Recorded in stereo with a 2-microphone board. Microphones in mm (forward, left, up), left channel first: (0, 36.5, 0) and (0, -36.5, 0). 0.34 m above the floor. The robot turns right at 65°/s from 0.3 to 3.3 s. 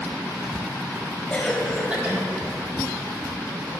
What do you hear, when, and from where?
1.3 s a cough: 160° left, 1.5 m; by 2.2 s 140° right, 1.5 m